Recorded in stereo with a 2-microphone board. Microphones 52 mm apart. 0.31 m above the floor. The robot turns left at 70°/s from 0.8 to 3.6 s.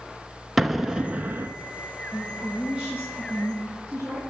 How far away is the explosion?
About 0.7 m.